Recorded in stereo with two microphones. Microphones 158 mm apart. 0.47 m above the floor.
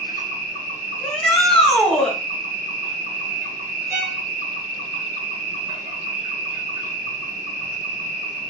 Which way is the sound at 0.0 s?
70° right (ahead or behind).